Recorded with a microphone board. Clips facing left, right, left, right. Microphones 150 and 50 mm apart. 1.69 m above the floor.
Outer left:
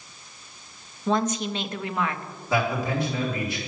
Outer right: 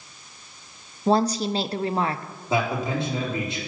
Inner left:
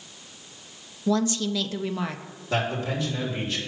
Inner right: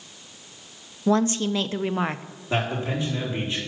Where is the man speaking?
25° right (ahead or behind), 4 m.